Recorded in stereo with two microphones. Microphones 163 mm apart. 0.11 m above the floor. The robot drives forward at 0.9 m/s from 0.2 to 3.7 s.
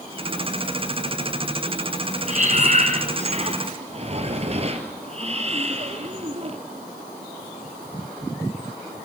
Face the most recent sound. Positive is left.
turn(degrees=-40)  # may be behind; listen again after turning